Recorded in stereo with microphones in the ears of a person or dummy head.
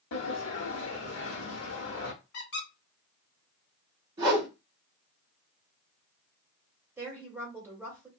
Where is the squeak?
45° left (ahead or behind), 1.2 m.